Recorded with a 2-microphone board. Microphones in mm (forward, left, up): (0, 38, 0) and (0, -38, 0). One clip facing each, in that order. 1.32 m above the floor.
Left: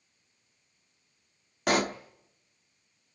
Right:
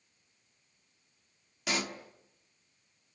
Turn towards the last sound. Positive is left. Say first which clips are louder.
# left 9 dB
turn(degrees=55)  # may be behind; listen again after turning